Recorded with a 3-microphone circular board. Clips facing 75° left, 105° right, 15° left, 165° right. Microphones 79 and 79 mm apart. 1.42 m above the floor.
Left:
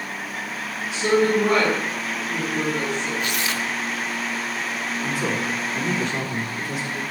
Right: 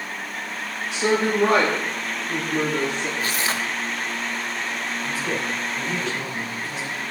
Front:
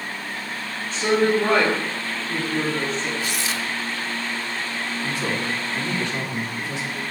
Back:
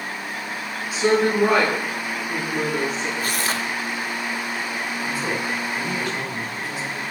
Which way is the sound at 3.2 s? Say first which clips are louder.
Even, back 2 dB; 145° right.